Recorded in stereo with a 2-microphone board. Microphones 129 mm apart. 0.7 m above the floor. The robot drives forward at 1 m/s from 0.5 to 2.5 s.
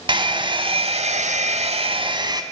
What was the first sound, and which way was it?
A hair dryer, 40° right (ahead or behind).